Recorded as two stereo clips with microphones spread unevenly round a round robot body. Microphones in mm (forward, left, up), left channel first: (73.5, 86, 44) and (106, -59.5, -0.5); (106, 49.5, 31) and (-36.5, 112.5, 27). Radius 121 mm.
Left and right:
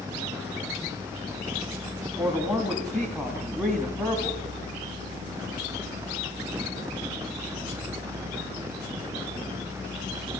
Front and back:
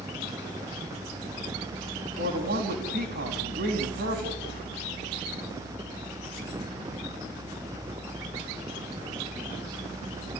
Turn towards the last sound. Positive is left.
turn(degrees=-165)